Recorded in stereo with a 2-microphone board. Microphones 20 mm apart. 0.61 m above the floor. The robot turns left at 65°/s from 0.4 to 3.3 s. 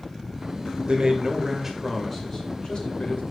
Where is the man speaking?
105° right, 2.5 m; by 3.2 s 100° left, 2.5 m.